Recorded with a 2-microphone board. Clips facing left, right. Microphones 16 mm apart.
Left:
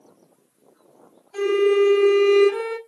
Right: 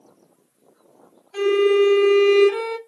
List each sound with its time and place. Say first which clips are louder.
1.3 s a violin: right 1 dB; 30° right (ahead or behind), 1.4 m